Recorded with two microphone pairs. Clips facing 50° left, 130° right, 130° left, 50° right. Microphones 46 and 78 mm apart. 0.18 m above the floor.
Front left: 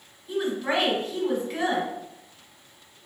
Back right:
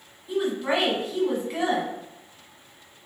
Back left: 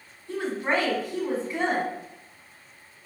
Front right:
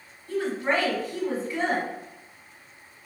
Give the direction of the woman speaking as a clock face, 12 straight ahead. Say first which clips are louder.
Back right 1 dB, front right 1 dB; 7 o'clock.